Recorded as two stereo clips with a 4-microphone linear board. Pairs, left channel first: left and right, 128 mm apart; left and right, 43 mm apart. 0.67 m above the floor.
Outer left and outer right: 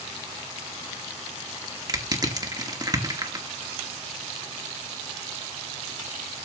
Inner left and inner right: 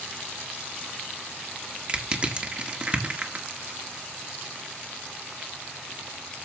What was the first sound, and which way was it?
Crushing, 30° right (ahead or behind).